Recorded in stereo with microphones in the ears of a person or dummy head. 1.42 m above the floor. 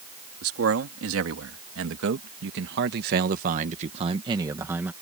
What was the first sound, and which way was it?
A man speaking, 80° right.